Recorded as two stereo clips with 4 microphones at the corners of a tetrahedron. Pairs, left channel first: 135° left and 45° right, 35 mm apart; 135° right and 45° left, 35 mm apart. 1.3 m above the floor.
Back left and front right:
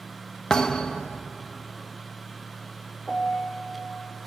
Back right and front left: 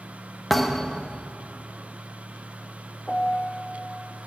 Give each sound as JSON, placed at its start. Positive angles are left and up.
{"t": 0.5, "sound": "a thud", "azimuth_deg": 150, "distance_m": 0.6}
{"t": 3.1, "sound": "a piano", "azimuth_deg": -170, "distance_m": 0.9}